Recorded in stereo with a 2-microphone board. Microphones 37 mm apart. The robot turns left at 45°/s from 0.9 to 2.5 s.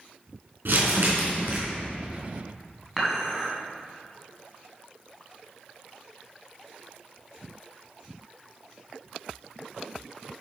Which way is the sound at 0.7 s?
105° right.